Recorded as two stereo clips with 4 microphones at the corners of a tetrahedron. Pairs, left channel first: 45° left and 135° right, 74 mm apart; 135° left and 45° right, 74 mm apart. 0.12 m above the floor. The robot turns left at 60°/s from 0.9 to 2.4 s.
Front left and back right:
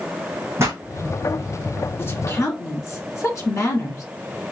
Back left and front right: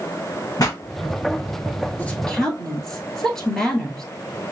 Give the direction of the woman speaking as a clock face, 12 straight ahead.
9 o'clock.